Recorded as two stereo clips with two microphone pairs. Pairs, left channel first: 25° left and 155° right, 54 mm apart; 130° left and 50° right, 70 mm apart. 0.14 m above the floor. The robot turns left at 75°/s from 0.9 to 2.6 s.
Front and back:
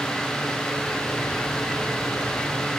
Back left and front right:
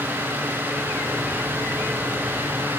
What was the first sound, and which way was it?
Only background noise.